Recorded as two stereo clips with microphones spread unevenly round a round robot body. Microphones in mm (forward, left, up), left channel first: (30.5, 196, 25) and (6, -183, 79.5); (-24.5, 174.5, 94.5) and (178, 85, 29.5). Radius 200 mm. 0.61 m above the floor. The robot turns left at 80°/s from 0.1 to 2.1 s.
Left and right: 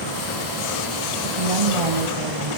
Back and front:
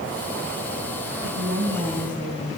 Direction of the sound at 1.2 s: 55° right.